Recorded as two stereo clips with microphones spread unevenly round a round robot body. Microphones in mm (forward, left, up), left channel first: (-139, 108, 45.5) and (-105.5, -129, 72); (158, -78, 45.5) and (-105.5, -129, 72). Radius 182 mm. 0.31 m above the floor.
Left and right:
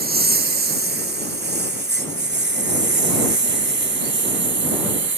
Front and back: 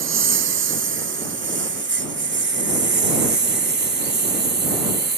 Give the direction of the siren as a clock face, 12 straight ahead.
I don't hear a siren.